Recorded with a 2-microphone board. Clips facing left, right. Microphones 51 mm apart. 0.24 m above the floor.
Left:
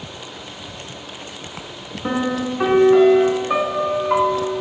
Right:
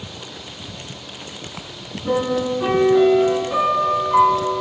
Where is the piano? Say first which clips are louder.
Right 2 dB; 65° left (ahead or behind), 1.4 m.